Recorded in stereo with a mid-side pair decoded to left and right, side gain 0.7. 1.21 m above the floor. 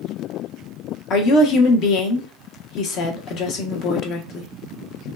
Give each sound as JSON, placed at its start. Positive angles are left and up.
{"t": 1.1, "sound": "a woman speaking", "azimuth_deg": 55, "distance_m": 0.9}